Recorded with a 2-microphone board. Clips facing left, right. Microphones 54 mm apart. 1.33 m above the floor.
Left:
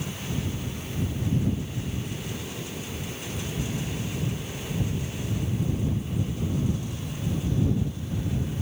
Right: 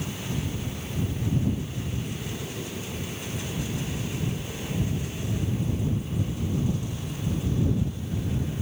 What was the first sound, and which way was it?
Only background noise.